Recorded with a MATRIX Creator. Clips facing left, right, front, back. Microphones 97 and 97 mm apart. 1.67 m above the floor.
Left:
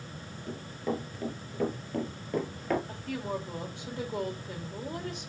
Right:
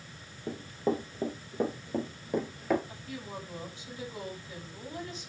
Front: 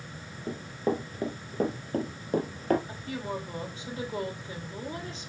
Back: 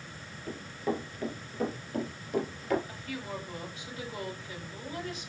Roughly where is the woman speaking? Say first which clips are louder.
Left 7 dB, front 4 dB; ahead left.